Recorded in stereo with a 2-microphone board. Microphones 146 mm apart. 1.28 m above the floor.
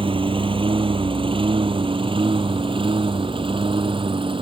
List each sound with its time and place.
0.0 s a lawn mower: 35° right (ahead or behind)